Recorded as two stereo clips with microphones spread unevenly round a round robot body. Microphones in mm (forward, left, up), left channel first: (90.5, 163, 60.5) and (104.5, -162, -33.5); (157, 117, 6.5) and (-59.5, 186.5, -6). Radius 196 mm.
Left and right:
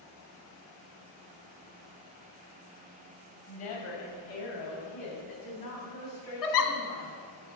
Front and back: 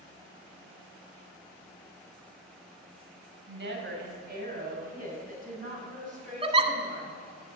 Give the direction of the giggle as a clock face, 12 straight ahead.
9 o'clock.